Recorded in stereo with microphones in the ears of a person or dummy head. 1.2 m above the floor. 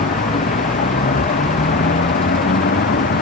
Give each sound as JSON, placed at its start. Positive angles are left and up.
{"t": 0.0, "sound": "a vehicle", "side_deg": 45}